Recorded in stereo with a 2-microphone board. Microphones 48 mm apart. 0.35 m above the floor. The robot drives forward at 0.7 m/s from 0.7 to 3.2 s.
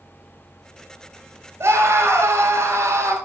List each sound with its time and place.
1.6 s a scream: 65° right (ahead or behind), 5.5 m; by 3.1 s 70° right (ahead or behind), 5 m